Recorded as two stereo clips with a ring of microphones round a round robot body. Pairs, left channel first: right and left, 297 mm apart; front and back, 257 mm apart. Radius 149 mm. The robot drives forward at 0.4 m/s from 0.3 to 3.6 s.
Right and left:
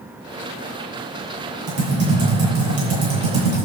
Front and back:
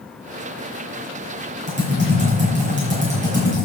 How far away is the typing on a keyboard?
About 8.5 m.